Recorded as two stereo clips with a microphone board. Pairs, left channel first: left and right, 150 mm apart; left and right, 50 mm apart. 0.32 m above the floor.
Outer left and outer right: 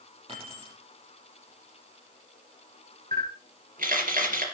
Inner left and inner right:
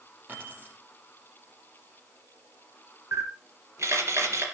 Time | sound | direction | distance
0.3 | keys jangling | 40° right (ahead or behind) | 5 m
3.1 | a camera shutter | 65° right (ahead or behind) | 3.5 m